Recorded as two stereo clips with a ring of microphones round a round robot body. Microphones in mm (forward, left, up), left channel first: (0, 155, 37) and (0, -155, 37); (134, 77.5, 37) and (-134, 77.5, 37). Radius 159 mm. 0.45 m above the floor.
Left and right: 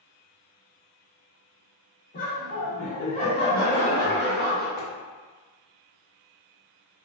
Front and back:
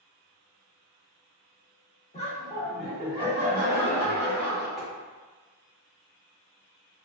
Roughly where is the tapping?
Left.